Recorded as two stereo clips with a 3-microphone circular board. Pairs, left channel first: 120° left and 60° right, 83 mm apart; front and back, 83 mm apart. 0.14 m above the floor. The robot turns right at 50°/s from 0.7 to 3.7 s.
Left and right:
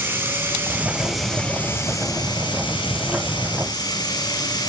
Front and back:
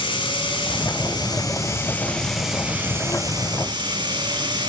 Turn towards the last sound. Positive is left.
turn(degrees=155)